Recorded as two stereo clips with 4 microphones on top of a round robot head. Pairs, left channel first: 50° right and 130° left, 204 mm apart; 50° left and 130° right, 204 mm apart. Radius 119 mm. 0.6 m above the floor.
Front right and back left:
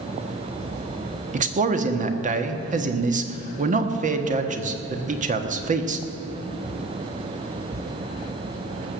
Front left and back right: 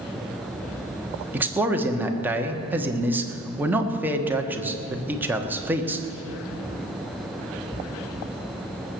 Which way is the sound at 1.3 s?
150° left.